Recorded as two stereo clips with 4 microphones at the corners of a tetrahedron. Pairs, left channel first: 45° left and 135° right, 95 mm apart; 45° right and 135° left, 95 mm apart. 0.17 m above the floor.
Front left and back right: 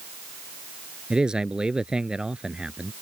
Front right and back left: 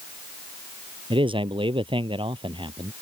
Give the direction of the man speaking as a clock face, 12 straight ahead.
7 o'clock.